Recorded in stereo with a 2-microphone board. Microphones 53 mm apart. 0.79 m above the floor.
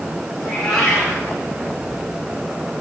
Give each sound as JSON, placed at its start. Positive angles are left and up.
{"t": 0.4, "sound": "a cat meowing", "side_deg": 10, "distance_m": 8.0}